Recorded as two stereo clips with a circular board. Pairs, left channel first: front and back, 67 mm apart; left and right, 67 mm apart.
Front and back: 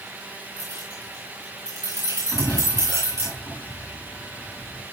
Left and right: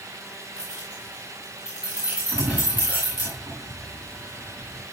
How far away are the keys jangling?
About 8 m.